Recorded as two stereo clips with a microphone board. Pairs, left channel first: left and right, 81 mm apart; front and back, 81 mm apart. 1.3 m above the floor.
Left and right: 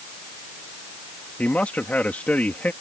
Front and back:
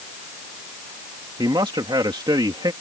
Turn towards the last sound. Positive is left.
turn(degrees=160)